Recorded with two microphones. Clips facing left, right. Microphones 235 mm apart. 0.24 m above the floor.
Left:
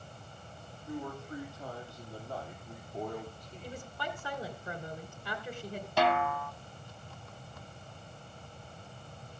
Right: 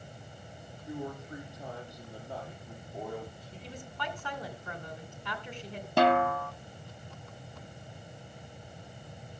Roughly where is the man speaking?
Right.